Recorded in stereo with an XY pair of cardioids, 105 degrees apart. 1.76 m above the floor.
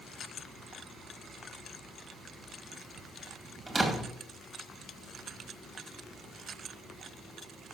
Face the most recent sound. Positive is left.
turn(degrees=-30)